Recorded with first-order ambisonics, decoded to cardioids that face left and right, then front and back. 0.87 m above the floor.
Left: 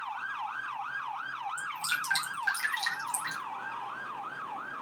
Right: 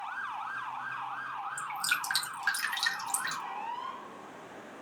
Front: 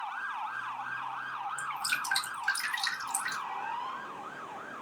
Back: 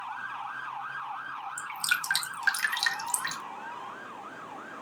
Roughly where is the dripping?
Behind.